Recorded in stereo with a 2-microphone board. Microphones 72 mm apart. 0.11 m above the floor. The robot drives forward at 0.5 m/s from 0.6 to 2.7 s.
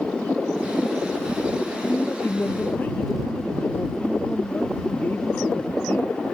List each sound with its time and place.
1.9 s a man speaking: 25° left (ahead or behind)